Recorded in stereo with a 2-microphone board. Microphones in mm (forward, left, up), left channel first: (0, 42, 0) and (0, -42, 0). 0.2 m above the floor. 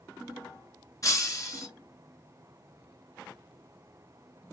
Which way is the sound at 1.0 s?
45° left (ahead or behind).